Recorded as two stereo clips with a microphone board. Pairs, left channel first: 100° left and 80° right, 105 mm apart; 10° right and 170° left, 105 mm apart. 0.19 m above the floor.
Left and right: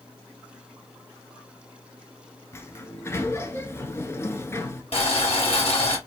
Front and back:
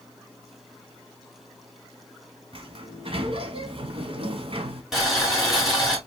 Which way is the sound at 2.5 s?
160° left.